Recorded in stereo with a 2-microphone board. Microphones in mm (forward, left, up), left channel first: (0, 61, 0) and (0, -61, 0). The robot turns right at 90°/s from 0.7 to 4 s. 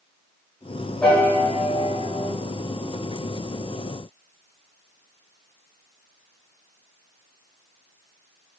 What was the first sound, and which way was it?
A piano, 5° left.